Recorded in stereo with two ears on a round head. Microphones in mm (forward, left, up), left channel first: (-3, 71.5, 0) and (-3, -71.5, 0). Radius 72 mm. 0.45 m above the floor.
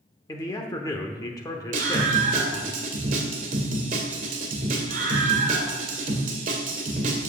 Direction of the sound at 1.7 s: 55° right (ahead or behind).